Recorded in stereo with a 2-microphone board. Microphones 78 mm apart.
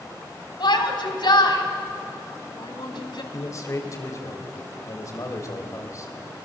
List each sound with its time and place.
0.6 s a shout: 70° left (ahead or behind), 3 m
3.3 s a man speaking: 45° left (ahead or behind), 3 m